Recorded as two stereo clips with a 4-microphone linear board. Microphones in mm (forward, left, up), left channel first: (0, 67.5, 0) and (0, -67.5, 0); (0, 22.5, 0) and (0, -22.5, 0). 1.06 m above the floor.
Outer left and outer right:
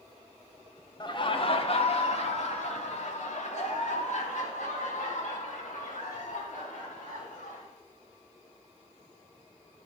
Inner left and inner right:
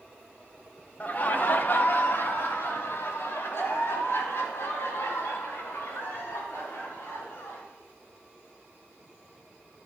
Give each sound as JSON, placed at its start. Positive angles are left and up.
{"t": 1.0, "sound": "laughter", "side_deg": 35, "distance_m": 1.4}